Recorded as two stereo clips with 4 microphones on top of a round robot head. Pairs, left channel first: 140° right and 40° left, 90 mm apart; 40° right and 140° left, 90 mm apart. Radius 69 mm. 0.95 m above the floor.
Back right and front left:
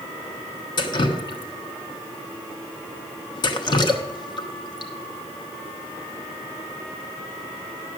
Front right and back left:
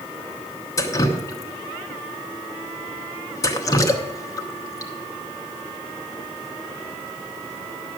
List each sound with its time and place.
0.8 s dripping: 100° right, 0.9 m